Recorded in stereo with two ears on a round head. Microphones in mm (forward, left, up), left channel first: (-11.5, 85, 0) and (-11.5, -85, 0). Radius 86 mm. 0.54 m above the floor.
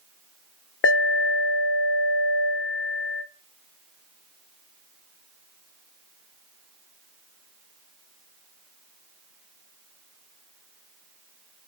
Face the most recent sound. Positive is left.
turn(degrees=55)  # may be behind; listen again after turning